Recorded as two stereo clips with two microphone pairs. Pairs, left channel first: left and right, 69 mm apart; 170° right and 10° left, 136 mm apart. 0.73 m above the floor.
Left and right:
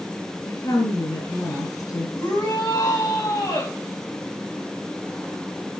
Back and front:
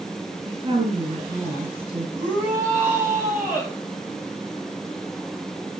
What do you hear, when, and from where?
0.5 s a woman speaking: 60° left, 7 m
2.2 s a shout: 85° left, 5 m